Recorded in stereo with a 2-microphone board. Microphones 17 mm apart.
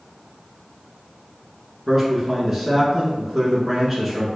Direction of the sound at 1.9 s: 15° right (ahead or behind).